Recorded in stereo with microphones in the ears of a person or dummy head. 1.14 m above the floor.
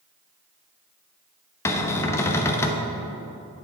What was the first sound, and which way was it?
A cupboard door, 15° left (ahead or behind).